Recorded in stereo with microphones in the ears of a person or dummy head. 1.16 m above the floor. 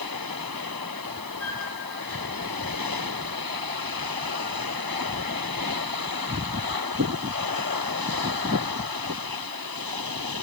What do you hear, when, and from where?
1.4 s a flute: 5° left (ahead or behind), 1.6 m